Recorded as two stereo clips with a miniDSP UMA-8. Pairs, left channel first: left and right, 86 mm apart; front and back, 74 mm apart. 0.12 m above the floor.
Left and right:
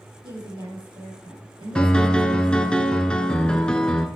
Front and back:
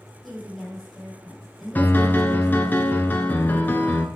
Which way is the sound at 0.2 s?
90° right.